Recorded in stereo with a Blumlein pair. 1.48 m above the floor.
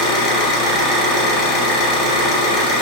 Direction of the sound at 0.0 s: 30° left.